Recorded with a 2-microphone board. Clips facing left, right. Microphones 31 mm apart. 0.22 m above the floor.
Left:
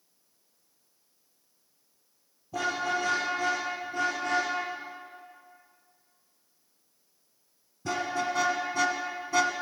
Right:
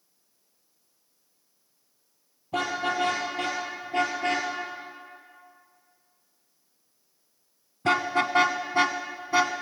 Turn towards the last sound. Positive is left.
turn(degrees=-20)  # may be behind; listen again after turning